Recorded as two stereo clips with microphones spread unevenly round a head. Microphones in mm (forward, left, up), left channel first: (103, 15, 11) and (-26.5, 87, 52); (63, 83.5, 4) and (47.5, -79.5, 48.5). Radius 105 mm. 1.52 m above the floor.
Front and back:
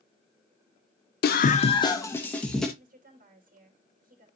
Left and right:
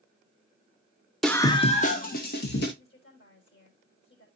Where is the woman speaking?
120° left, 3.5 m.